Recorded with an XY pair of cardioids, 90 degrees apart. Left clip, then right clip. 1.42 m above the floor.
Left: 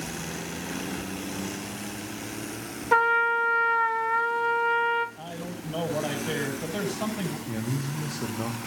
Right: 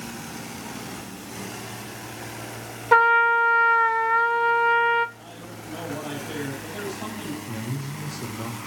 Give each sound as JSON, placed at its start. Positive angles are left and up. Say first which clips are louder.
{"t": 2.9, "sound": "a trumpet", "louder": "right 5 dB", "azimuth_deg": -35, "distance_m": 0.9}
{"t": 5.2, "sound": "a man speaking", "louder": "left 3 dB", "azimuth_deg": 60, "distance_m": 8.5}
{"t": 7.5, "sound": "a man speaking", "louder": "left 1 dB", "azimuth_deg": 25, "distance_m": 1.6}